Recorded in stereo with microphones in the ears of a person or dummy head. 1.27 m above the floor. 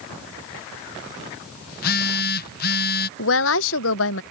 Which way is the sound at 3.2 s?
70° left (ahead or behind).